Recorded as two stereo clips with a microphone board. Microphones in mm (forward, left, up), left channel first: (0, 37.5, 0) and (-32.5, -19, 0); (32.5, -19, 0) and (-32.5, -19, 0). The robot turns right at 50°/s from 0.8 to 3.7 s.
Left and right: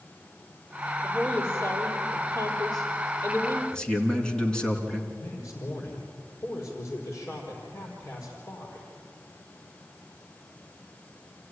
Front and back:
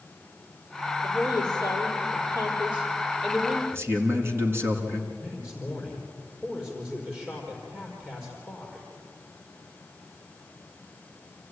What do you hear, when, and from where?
1.0 s a woman speaking: 15° right, 6.5 m; by 3.6 s 115° left, 6.5 m
3.7 s a man speaking: 135° left, 3 m
5.1 s a man speaking: 110° left, 5 m